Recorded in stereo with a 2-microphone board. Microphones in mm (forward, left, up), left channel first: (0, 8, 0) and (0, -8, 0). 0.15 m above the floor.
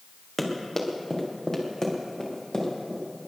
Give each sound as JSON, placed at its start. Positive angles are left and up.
{"t": 0.4, "sound": "running footsteps", "side_deg": 5, "distance_m": 3.0}